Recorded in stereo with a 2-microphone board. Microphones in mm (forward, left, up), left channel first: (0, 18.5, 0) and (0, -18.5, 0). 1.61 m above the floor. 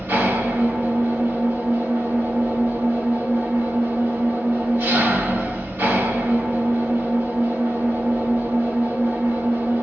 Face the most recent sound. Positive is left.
turn(degrees=-70)  # may be behind; listen again after turning